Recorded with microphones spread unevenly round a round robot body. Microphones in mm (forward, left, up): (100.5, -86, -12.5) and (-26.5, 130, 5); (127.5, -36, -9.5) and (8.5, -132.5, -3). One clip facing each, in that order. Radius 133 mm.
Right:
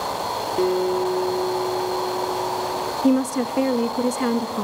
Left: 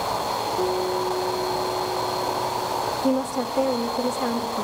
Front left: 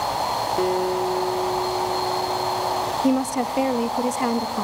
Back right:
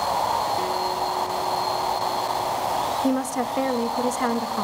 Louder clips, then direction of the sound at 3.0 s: Right 5 dB, front left 4 dB; 30° right.